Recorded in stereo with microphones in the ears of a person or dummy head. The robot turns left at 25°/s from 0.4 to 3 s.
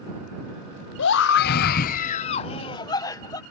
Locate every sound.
1.0 s a scream: 65° left; by 3.4 s 15° left